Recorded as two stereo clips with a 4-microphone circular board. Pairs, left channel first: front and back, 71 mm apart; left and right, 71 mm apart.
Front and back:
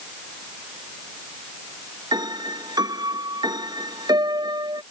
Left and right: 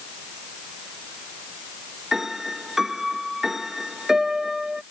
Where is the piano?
175° right.